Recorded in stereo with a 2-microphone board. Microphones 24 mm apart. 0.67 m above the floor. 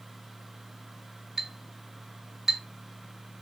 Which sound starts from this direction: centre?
A clink, at 1.4 s.